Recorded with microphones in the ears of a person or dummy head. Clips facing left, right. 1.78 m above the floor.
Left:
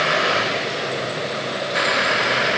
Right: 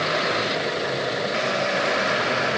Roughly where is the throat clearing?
I don't hear throat clearing.